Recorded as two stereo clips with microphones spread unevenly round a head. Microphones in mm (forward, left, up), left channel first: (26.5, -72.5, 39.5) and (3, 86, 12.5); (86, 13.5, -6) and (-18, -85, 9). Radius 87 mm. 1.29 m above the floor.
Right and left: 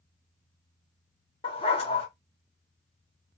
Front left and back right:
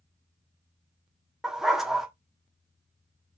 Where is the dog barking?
55° right, 1.0 m.